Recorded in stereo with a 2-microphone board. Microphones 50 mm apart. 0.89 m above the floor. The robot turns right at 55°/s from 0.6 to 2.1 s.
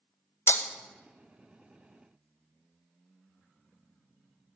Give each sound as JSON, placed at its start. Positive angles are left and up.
{"t": 0.5, "sound": "breaking glass", "side_deg": 60, "distance_m": 0.5}